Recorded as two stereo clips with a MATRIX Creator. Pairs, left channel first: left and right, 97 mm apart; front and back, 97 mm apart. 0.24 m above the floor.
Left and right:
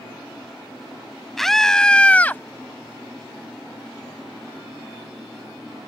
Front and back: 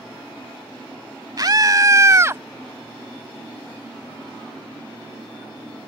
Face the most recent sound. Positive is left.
turn(degrees=140)